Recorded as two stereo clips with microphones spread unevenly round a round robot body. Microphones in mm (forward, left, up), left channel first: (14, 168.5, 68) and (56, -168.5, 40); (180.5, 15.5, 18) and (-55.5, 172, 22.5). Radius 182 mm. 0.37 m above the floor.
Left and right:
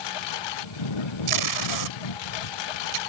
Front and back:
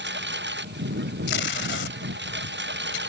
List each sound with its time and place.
0.0 s a lawn mower: 95° left
1.3 s tape being pulled: 85° right